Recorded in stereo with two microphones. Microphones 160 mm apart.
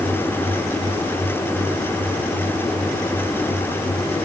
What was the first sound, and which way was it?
Only background noise.